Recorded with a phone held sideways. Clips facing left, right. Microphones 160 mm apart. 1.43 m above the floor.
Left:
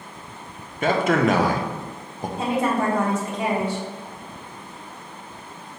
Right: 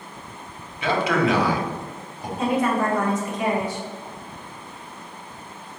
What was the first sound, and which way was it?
A man speaking, 45° left (ahead or behind).